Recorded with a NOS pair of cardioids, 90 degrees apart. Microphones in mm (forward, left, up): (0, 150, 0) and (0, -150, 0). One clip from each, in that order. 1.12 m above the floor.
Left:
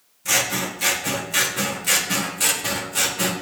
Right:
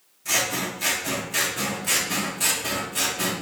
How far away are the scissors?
About 0.9 m.